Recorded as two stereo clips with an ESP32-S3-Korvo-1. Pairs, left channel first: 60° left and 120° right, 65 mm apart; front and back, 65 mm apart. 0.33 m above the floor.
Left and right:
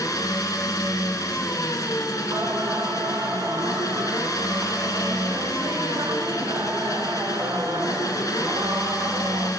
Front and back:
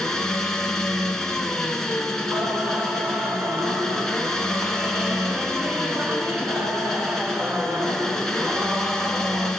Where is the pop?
I don't hear a pop.